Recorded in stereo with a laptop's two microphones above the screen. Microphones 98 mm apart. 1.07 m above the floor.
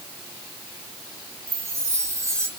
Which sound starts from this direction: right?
A chime, at 1.5 s.